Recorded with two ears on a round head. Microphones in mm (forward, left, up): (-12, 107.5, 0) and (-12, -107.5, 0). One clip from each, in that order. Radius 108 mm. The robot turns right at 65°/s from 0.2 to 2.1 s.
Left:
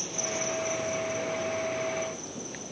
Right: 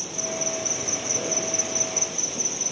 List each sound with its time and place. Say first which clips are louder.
0.0 s an insect: right 3 dB; 175° right, 2.0 m; by 2.7 s 55° right, 2.0 m